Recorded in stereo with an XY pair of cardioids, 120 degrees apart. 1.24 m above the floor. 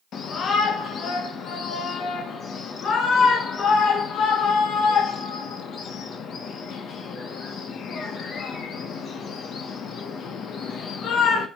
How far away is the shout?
About 1.3 m.